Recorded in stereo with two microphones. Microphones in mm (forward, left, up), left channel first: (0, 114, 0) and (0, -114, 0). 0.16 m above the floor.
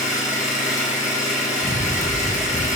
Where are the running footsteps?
35° right (ahead or behind), 0.6 m; by 2.8 s 30° left (ahead or behind), 0.5 m.